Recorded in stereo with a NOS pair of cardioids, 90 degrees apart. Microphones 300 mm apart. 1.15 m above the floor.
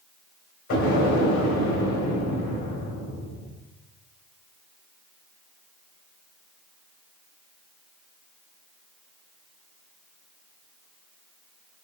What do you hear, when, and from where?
0.7 s an explosion: 55° left, 3 m